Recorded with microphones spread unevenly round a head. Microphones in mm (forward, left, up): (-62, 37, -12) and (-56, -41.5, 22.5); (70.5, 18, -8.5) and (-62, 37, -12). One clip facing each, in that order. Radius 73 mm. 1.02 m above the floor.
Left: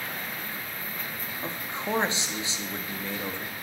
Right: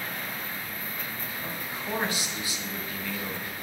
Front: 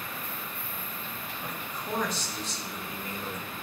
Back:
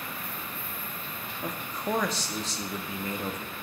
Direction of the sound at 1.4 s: 155° left.